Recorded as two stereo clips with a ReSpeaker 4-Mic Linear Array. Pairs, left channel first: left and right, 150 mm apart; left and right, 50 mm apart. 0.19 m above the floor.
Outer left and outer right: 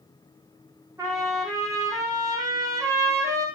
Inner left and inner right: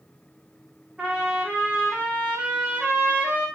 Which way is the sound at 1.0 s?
25° right (ahead or behind).